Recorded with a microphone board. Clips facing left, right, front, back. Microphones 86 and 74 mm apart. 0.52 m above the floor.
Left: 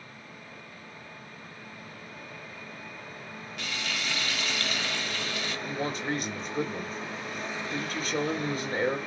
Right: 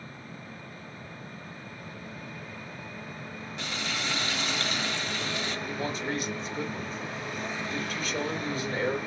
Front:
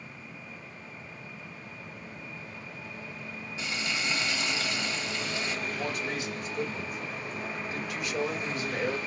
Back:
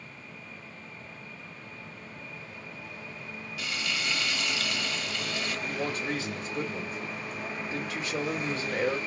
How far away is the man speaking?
About 2.5 m.